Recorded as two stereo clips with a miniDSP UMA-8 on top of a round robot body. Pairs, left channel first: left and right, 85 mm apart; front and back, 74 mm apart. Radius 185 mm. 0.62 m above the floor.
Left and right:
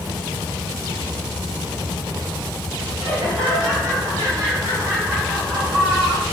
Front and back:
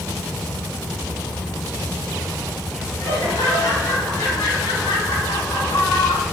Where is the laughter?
55° right, 7 m; by 6.2 s 20° right, 7 m.